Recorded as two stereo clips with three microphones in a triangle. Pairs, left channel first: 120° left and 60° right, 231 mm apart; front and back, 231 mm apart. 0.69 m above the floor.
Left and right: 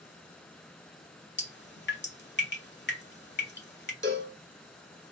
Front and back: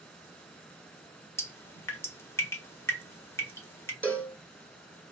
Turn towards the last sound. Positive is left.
turn(degrees=-80)